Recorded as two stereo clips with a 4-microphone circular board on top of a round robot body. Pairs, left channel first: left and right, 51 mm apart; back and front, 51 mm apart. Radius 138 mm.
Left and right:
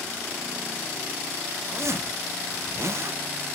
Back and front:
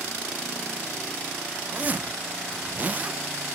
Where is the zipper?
60° right, 0.6 m.